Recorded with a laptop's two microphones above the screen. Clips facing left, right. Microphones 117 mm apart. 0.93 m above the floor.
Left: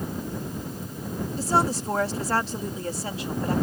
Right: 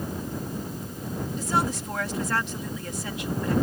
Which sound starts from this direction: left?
A woman speaking, at 1.4 s.